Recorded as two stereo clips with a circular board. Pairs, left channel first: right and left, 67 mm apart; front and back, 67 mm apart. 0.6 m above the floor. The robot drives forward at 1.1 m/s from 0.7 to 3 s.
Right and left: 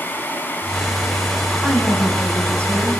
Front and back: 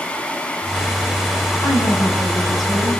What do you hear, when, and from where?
1.6 s a woman speaking: 15° right, 6 m; by 3.0 s 20° right, 4.5 m